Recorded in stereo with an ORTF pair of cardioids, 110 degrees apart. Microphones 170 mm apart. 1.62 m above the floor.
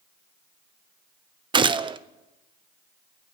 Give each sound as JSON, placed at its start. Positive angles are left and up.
{"t": 1.5, "sound": "a gunshot", "azimuth_deg": -25, "distance_m": 0.9}